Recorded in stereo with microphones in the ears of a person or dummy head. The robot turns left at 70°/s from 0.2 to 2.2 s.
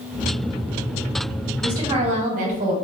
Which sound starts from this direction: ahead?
A woman speaking, at 1.6 s.